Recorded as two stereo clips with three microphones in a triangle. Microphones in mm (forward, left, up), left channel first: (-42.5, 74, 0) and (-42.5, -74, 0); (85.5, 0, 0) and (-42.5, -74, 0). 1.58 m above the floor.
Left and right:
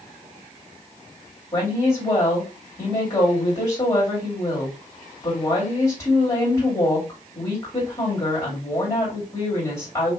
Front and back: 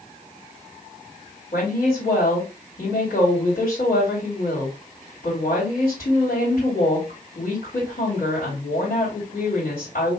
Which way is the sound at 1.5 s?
30° left.